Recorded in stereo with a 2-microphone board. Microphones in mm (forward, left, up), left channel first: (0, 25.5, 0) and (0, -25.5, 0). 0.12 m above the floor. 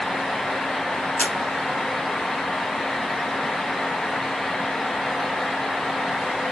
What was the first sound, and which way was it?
A camera shutter, 30° left (ahead or behind).